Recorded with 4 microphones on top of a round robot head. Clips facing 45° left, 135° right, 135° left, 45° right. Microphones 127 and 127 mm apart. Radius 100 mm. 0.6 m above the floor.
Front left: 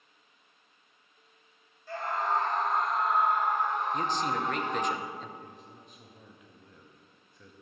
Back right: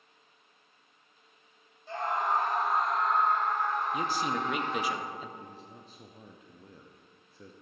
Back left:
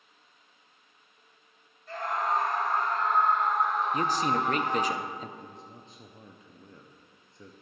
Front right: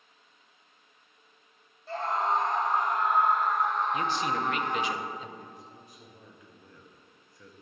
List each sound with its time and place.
1.9 s a scream: 80° right, 1.4 m; by 4.9 s 70° left, 1.5 m
3.9 s a man speaking: 145° left, 0.7 m
5.4 s a man speaking: 175° right, 0.8 m